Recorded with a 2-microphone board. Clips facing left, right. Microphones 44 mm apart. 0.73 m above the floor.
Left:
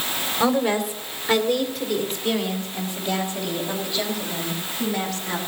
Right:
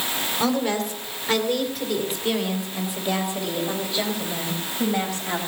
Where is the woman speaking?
15° left (ahead or behind), 2 m; by 5.4 s 20° right (ahead or behind), 4.5 m.